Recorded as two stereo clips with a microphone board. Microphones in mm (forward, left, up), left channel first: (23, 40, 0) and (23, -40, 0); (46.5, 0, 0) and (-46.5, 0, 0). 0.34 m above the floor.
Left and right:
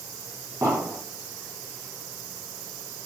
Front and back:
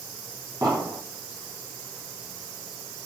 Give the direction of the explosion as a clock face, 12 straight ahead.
4 o'clock.